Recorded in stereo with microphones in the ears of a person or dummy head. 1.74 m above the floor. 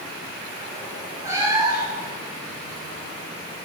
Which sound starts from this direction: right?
A cat meowing, at 1.2 s.